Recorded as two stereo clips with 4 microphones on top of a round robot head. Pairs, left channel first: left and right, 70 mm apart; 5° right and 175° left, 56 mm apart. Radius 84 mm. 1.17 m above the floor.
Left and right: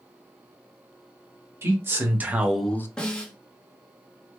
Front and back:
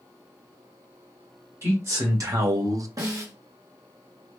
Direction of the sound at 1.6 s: 145° right.